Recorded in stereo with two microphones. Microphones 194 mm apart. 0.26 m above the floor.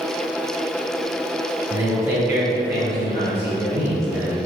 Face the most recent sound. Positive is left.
turn(degrees=-15)  # may be behind; listen again after turning